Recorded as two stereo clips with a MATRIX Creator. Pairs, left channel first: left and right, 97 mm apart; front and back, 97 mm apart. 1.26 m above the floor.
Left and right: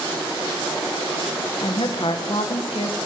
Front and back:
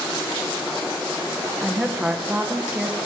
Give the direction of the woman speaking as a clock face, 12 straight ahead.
9 o'clock.